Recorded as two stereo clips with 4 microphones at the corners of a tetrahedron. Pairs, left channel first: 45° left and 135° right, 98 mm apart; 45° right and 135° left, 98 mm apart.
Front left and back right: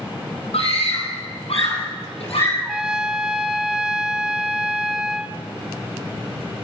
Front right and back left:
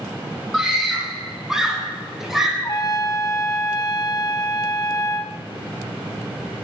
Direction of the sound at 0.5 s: 45° left.